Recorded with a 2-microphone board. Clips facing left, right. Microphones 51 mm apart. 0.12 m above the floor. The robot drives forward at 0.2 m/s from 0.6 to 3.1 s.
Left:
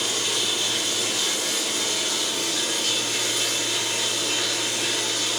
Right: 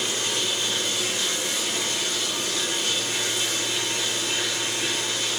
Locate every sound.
0.0 s running water: 70° left (ahead or behind), 1.4 m; by 5.4 s 75° left (ahead or behind), 1.4 m